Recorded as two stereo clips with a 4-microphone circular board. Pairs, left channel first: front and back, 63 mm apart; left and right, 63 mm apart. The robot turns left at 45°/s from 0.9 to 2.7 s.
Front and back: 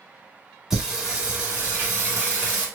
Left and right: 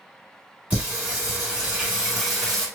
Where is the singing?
110° right, 1.3 m; by 2.7 s 170° left, 1.3 m.